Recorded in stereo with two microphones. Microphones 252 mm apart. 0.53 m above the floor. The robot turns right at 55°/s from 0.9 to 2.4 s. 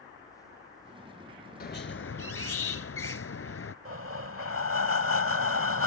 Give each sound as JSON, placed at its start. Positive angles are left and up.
{"t": 1.6, "sound": "a squeak", "azimuth_deg": 45}
{"t": 3.9, "sound": "breathing", "side_deg": -60}